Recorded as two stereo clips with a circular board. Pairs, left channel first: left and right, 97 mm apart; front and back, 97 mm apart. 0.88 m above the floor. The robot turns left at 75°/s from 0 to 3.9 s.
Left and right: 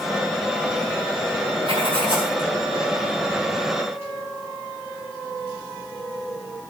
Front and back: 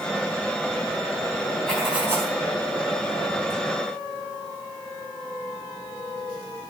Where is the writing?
80° right, 4.5 m; by 2.4 s 135° right, 4.5 m.